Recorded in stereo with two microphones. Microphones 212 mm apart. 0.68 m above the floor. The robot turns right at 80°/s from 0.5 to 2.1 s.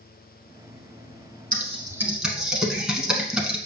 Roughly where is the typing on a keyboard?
Right.